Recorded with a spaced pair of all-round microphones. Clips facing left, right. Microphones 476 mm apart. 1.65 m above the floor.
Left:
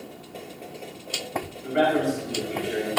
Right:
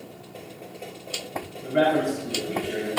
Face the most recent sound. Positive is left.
turn(degrees=-60)  # may be behind; listen again after turning